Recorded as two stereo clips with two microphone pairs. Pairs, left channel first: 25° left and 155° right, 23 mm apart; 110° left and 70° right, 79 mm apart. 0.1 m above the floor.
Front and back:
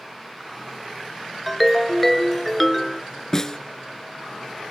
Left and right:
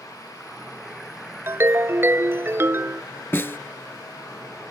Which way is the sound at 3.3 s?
80° left.